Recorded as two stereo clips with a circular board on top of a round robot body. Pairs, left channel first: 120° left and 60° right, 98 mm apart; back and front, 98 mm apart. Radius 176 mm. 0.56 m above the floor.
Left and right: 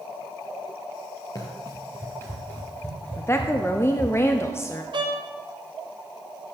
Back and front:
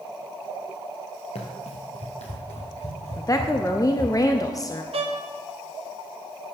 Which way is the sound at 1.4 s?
175° left.